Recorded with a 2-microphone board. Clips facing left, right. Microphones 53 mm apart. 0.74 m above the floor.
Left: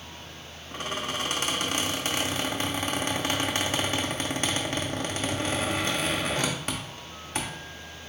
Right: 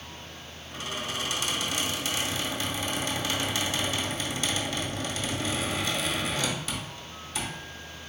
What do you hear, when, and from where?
0.7 s a squeak: 45° left (ahead or behind), 0.8 m